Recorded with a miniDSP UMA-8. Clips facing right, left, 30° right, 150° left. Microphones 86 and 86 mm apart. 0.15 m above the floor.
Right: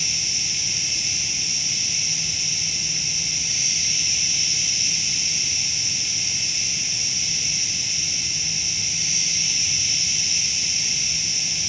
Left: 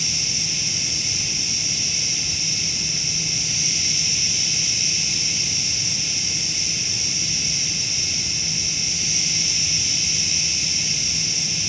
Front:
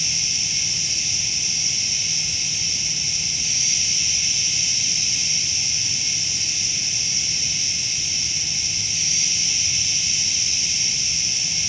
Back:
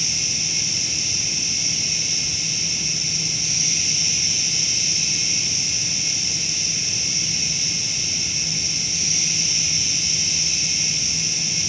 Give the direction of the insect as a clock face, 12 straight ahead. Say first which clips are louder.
Left 3 dB, back 2 dB; 2 o'clock.